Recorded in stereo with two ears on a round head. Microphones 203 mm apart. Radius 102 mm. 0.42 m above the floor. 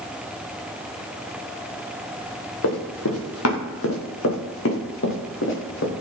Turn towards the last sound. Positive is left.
turn(degrees=55)  # may be behind; listen again after turning